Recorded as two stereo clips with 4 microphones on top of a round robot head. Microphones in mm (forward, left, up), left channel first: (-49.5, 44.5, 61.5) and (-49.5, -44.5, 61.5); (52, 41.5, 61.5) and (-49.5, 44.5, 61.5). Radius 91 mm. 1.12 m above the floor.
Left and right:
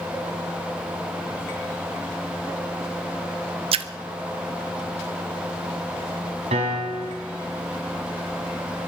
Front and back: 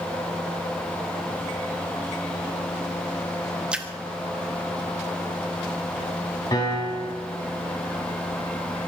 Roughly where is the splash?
Right.